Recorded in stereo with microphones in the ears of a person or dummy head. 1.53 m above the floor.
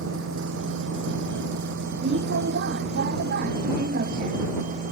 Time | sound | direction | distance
0.0 | a vehicle | 70° right (ahead or behind) | ?